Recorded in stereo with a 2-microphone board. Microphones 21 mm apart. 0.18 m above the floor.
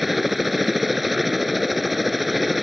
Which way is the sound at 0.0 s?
5° right (ahead or behind).